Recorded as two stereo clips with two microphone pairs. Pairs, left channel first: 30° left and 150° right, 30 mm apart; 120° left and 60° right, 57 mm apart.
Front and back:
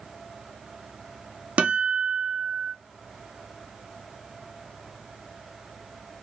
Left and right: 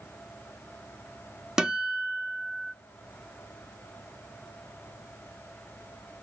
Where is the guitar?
135° right, 0.7 m.